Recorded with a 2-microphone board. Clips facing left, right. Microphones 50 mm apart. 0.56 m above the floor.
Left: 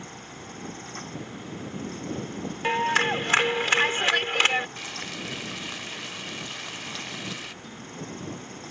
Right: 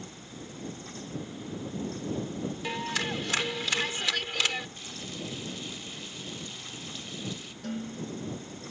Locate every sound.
2.6 s a clap: 45° left (ahead or behind)
4.8 s frying: 80° left
7.6 s dishes clattering: 55° right (ahead or behind)